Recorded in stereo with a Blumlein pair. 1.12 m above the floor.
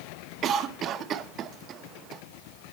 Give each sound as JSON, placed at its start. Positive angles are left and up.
{"t": 0.4, "sound": "a cough", "azimuth_deg": -30, "distance_m": 1.0}